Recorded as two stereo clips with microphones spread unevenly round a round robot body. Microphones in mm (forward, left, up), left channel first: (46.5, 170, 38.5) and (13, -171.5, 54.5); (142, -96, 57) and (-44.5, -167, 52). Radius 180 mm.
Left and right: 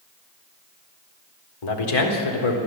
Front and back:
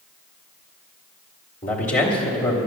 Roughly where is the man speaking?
Left.